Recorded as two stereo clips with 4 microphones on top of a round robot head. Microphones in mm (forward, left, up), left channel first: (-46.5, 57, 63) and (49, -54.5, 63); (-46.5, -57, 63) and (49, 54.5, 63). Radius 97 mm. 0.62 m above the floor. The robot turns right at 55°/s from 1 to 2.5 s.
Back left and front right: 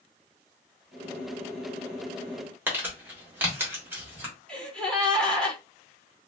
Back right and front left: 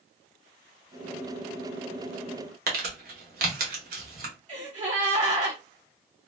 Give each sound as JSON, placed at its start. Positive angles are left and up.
{"t": 2.7, "sound": "crumpling", "azimuth_deg": 30, "distance_m": 1.3}
{"t": 4.5, "sound": "a gasp", "azimuth_deg": 50, "distance_m": 1.8}